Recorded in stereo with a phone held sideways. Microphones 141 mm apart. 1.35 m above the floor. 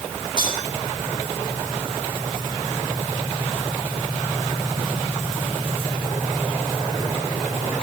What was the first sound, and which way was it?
Cutlery clinking, 35° right (ahead or behind).